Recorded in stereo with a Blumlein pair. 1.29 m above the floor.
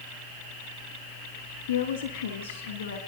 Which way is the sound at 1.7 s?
65° left.